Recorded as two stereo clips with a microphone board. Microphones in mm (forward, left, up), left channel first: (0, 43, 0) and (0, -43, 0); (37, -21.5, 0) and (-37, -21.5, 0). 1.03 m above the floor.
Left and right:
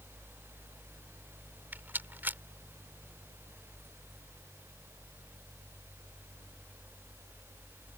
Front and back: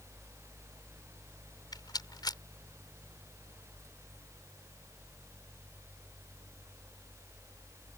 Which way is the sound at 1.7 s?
25° right.